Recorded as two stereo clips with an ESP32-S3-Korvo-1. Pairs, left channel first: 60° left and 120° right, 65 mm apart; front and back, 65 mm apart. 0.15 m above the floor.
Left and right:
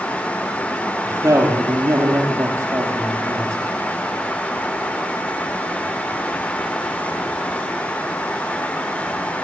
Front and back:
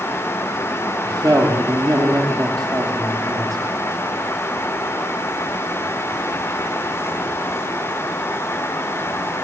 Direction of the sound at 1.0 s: 160° right.